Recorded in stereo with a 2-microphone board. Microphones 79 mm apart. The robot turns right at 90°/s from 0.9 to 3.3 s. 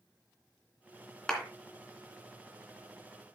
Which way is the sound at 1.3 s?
10° left (ahead or behind).